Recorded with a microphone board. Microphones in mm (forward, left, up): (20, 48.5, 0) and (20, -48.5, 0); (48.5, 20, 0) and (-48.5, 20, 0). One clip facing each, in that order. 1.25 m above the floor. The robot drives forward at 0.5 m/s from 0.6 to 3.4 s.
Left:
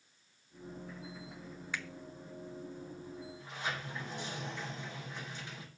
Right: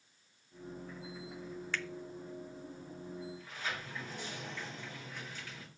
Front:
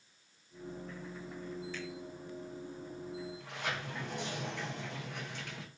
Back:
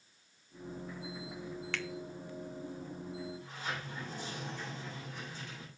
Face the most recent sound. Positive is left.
turn(degrees=20)